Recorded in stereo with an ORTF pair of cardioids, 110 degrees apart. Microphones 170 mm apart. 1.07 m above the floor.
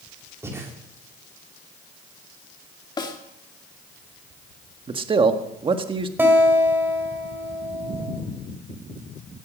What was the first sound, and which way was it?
Breathing, 15° right.